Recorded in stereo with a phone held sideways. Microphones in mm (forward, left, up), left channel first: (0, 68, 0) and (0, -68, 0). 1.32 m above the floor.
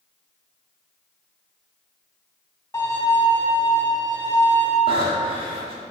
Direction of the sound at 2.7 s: 15° left (ahead or behind).